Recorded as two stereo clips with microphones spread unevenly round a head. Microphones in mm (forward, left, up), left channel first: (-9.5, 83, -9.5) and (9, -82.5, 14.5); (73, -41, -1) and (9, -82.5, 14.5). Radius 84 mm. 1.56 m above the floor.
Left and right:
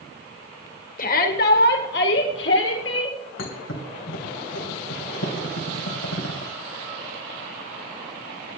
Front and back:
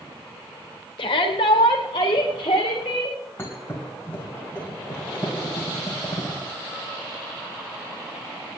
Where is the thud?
110° left, 3 m.